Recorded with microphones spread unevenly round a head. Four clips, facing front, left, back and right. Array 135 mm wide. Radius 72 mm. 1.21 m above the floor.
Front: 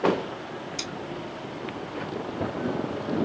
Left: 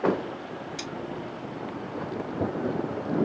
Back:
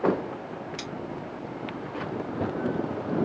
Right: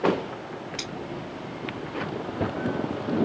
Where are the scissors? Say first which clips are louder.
Even, front 1 dB; 110° right, 1.6 m.